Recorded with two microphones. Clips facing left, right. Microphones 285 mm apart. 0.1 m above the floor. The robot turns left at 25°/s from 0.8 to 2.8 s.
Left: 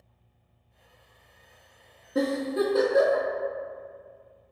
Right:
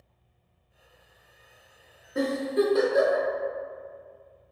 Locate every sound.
2.1 s a giggle: 45° left (ahead or behind), 1.0 m; by 3.3 s 60° left (ahead or behind), 1.0 m